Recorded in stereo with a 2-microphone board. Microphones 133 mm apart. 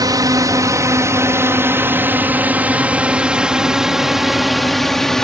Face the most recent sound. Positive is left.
turn(degrees=5)  # may be behind; listen again after turning